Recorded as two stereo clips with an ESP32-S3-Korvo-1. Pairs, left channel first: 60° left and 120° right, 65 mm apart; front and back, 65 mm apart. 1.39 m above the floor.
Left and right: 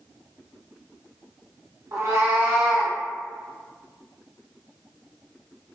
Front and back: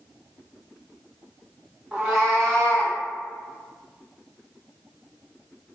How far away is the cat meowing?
About 0.8 m.